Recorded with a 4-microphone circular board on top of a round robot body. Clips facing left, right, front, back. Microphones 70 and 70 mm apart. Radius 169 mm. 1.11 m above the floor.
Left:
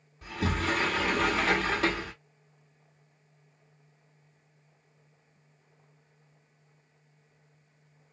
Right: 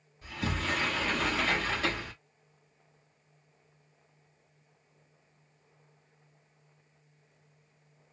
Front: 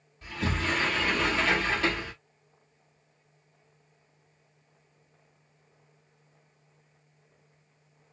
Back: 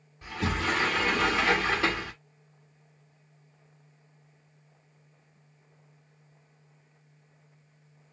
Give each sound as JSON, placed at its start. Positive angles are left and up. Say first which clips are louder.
{"t": 0.2, "sound": "a sliding door", "louder": "left 4 dB, back 1 dB", "azimuth_deg": 110, "distance_m": 1.6}